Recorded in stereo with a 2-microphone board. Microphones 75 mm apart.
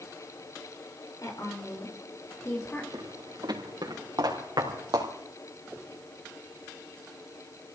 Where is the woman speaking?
50° left (ahead or behind), 6 m; by 2.8 s 30° left (ahead or behind), 5 m.